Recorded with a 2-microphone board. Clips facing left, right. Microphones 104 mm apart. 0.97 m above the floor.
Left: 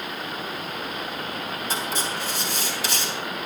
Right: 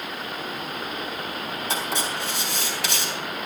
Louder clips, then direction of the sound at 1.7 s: Right 1 dB; 70° right (ahead or behind).